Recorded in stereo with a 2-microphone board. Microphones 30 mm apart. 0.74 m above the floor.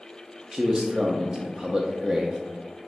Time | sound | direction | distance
0.5 | a man speaking | 15° right (ahead or behind) | 0.5 m